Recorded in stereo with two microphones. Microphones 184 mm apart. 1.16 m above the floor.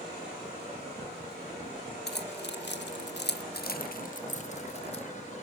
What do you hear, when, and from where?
2.1 s keys jangling: 65° left (ahead or behind), 1.4 m; by 5.0 s 35° left (ahead or behind), 1.8 m